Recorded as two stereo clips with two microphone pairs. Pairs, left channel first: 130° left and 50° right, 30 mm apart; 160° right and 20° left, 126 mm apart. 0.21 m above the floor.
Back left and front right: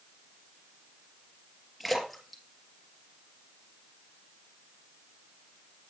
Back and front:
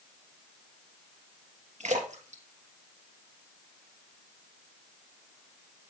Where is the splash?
40° left, 2.5 m.